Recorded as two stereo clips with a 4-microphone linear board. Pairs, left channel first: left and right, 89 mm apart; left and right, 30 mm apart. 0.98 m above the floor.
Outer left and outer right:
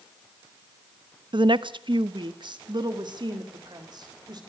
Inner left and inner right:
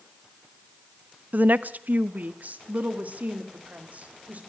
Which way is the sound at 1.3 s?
60° right (ahead or behind).